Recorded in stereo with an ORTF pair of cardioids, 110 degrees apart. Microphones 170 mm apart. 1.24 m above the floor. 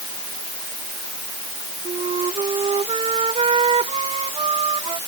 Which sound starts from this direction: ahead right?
A flute, at 1.9 s.